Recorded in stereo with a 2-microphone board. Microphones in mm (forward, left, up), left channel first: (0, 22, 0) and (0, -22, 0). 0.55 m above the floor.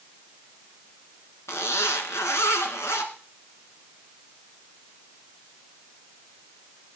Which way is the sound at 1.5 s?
85° left.